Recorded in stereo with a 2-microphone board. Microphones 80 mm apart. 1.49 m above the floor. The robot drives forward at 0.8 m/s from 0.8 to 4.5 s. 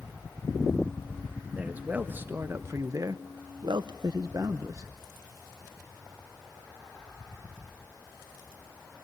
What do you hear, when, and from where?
1.6 s a man speaking: 20° right (ahead or behind), 1.9 m; by 4.9 s 45° right (ahead or behind), 0.9 m